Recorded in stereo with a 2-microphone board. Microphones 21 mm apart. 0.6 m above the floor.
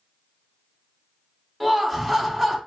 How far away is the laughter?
About 0.9 m.